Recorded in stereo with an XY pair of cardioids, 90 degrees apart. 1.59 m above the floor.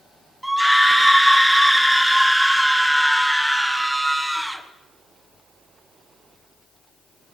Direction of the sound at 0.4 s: 5° right.